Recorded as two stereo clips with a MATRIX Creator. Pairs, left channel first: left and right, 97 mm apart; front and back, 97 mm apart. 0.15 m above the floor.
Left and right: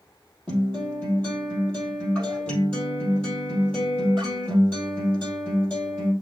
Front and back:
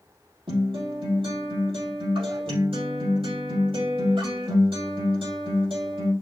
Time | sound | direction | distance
0.5 | a guitar | 170° left | 4 m